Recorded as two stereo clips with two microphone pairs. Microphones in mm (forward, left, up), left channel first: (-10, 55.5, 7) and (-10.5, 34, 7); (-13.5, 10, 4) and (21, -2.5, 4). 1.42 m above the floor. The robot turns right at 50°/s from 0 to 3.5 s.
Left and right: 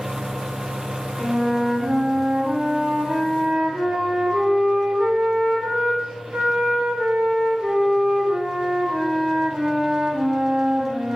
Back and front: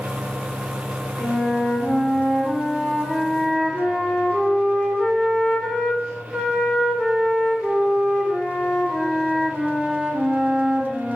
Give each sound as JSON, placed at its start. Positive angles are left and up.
{"t": 1.2, "sound": "a flute", "azimuth_deg": 135, "distance_m": 1.9}